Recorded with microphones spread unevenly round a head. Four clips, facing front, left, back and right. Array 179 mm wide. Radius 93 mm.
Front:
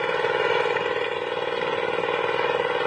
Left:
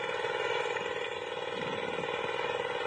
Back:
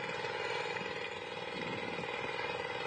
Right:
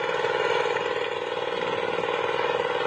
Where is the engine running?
30° right.